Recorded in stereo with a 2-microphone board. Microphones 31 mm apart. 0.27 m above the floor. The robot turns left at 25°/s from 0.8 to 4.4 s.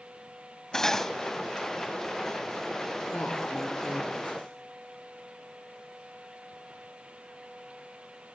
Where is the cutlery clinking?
15° left (ahead or behind), 0.8 m; by 1.1 s 10° left (ahead or behind), 0.8 m.